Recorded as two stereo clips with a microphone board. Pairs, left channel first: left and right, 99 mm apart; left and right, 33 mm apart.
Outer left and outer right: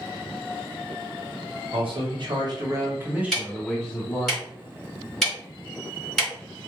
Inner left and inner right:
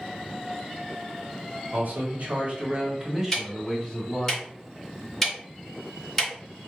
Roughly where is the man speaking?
Right.